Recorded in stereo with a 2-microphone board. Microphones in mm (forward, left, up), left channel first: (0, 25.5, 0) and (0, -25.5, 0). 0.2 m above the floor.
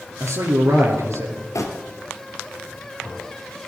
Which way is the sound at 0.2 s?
70° right (ahead or behind).